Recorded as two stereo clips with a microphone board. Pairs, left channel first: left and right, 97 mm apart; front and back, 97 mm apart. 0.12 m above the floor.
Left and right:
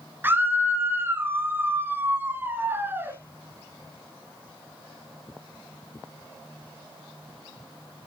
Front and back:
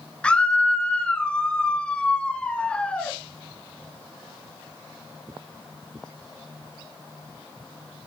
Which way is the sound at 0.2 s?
65° right.